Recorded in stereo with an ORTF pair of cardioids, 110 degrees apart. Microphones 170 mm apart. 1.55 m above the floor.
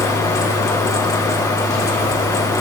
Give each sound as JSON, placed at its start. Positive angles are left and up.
{"t": 0.0, "sound": "a fan", "azimuth_deg": 20, "distance_m": 2.5}